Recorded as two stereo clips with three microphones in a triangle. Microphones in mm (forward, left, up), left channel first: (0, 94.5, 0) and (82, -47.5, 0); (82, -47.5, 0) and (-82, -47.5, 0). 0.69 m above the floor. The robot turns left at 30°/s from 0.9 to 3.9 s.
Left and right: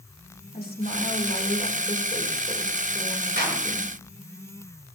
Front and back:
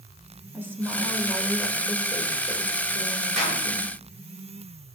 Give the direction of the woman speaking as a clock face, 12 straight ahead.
9 o'clock.